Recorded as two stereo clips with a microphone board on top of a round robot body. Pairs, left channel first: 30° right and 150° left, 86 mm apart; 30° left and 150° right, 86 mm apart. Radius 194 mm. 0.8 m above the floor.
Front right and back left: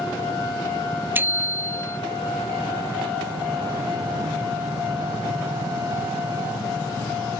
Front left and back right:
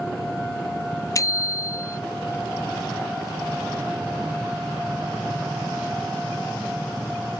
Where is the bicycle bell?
80° left.